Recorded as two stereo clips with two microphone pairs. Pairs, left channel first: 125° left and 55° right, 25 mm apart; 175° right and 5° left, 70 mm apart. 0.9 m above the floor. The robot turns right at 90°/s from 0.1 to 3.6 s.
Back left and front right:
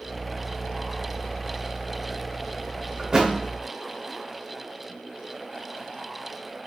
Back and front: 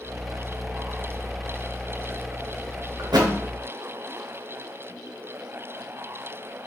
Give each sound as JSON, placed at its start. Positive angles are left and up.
{"t": 3.0, "sound": "a thud", "azimuth_deg": -5, "distance_m": 0.5}